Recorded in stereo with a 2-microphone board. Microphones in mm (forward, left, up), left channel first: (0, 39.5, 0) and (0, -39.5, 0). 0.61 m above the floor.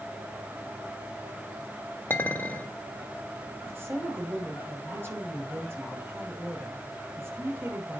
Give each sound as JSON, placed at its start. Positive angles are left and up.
{"t": 2.1, "sound": "a clink", "side_deg": 25, "distance_m": 1.2}
{"t": 3.7, "sound": "a woman speaking", "side_deg": -30, "distance_m": 3.0}